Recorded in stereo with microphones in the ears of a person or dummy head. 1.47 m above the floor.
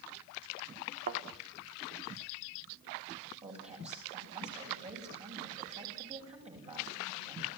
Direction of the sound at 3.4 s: 25° right (ahead or behind).